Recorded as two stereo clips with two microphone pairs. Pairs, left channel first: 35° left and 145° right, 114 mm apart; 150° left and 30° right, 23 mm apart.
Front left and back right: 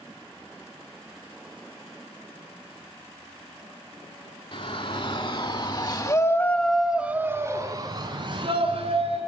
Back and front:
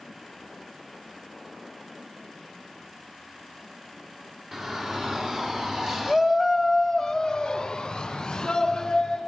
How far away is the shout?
About 3.5 m.